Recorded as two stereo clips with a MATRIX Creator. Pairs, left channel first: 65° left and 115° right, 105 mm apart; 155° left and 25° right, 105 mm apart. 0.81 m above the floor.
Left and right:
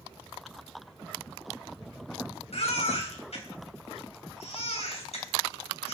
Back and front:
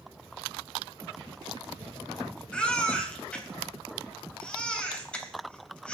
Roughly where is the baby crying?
Left.